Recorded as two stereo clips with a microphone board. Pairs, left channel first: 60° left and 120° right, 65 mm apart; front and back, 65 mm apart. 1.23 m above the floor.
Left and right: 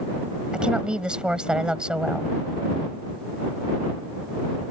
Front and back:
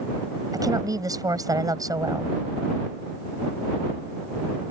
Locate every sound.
0.5 s a woman speaking: 165° left